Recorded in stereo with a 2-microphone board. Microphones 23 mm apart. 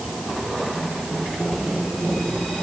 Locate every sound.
Only background noise.